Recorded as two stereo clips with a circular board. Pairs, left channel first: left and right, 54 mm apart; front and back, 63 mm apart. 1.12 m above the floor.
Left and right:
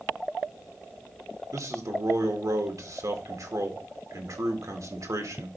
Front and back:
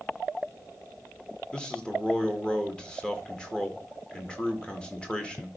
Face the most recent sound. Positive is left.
turn(degrees=-75)